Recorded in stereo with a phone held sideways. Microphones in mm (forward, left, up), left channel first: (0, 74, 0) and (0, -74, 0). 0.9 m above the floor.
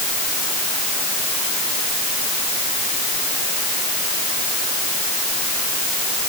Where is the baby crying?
No baby crying in this recording.